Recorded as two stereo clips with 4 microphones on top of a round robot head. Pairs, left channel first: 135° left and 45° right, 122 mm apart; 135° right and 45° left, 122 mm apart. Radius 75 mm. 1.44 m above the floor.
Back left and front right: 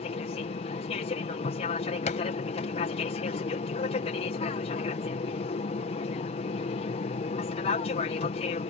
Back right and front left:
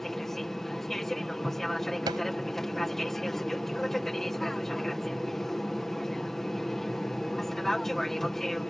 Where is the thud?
105° left.